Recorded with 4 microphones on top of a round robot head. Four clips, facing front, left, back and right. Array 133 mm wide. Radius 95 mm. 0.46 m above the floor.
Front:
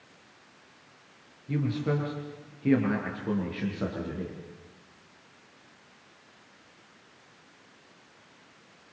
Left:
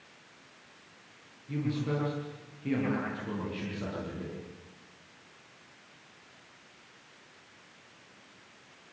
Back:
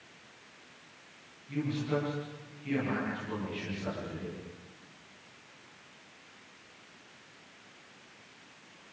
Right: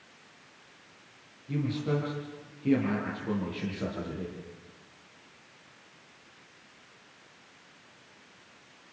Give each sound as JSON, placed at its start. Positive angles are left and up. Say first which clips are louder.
{"t": 1.5, "sound": "a man speaking", "louder": "right 2 dB, front 3 dB", "azimuth_deg": -10, "distance_m": 9.5}